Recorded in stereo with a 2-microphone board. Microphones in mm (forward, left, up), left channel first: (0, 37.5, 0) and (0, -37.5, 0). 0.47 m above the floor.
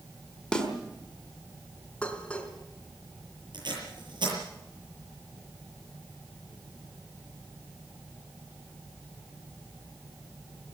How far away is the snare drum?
About 4 m.